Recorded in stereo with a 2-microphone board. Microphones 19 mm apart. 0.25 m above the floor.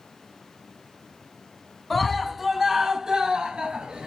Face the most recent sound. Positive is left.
turn(degrees=-55)  # may be behind; listen again after turning